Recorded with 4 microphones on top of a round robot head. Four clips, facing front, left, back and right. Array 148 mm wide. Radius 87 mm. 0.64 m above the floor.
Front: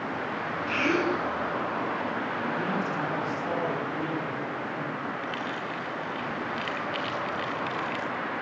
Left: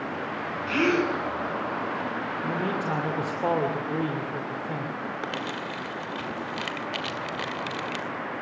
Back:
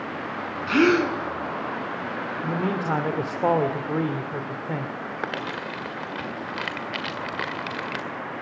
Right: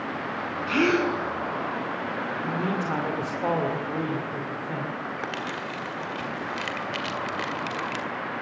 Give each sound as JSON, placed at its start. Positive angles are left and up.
{"t": 0.7, "sound": "a gasp", "azimuth_deg": -175, "distance_m": 3.5}
{"t": 2.4, "sound": "a man speaking", "azimuth_deg": 165, "distance_m": 2.5}
{"t": 5.2, "sound": "crumpling", "azimuth_deg": 165, "distance_m": 2.0}